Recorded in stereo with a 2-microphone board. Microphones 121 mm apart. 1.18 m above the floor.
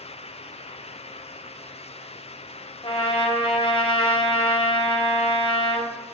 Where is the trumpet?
45° left (ahead or behind), 1.4 m.